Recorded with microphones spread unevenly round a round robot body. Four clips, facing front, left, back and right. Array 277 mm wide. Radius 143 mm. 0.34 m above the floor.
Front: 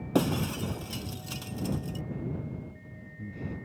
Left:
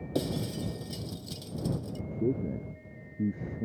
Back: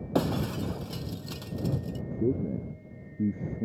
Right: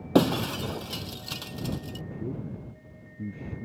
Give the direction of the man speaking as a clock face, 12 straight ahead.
7 o'clock.